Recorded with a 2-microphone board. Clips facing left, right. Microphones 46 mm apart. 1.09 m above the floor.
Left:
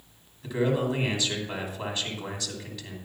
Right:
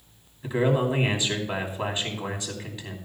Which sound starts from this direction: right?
A man speaking, at 0.4 s.